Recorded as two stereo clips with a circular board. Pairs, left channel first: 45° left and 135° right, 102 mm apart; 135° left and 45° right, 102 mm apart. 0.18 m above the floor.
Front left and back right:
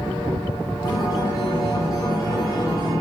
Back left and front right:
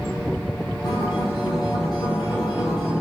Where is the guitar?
95° left, 3 m.